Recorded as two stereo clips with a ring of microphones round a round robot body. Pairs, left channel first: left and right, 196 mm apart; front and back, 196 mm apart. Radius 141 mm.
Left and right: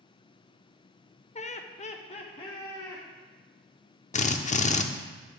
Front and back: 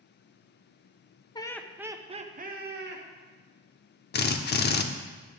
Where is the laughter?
55° left, 1.0 m; by 3.0 s 165° left, 1.7 m.